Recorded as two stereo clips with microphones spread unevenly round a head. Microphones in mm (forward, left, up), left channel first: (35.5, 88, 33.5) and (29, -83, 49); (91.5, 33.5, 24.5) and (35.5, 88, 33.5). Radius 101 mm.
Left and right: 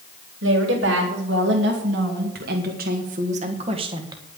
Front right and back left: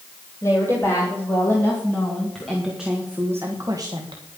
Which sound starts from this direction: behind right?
A woman speaking, at 0.4 s.